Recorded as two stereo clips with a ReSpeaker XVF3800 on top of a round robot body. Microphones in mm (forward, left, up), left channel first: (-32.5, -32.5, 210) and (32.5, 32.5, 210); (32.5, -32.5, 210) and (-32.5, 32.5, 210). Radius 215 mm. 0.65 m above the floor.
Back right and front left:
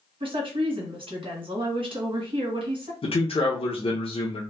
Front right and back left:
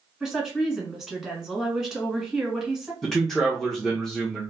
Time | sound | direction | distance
0.2 | a woman speaking | 50° left | 2.0 m
3.0 | a man speaking | 130° right | 0.9 m